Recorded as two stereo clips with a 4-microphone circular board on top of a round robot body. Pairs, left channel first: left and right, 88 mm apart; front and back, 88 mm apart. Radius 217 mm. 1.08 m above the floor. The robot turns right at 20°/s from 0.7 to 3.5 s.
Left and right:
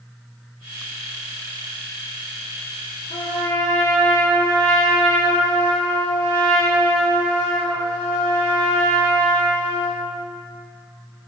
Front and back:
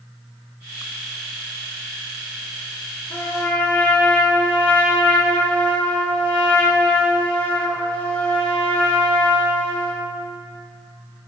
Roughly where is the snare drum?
I don't hear a snare drum.